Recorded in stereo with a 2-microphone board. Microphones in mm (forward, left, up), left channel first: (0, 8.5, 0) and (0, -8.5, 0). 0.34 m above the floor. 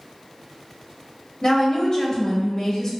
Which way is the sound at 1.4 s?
40° left (ahead or behind).